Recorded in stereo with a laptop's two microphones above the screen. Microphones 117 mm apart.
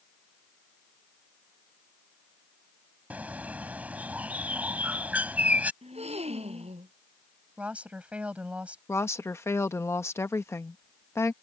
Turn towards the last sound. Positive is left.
turn(degrees=20)  # may be behind; listen again after turning